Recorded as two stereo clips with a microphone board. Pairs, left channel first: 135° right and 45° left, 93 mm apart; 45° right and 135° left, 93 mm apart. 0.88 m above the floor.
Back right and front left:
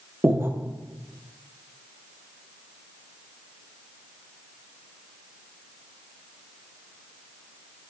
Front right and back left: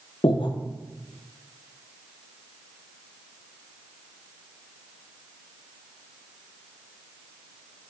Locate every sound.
0.2 s breathing: 20° right, 0.6 m